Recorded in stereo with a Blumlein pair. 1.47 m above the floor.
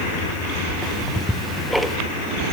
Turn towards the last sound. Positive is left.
turn(degrees=0)